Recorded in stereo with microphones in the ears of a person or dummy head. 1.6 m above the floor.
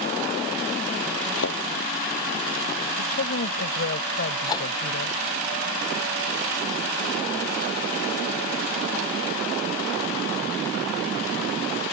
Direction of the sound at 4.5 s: 25° left (ahead or behind).